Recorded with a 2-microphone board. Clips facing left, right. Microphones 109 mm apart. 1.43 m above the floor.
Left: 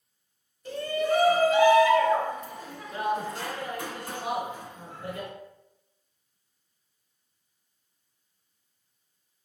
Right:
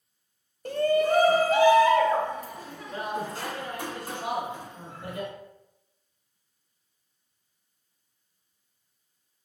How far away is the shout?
About 0.7 m.